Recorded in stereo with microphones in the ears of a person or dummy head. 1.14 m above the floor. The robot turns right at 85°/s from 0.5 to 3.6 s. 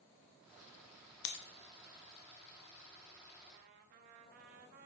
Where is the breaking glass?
65° left (ahead or behind), 0.7 m; by 1.4 s 55° left (ahead or behind), 0.7 m.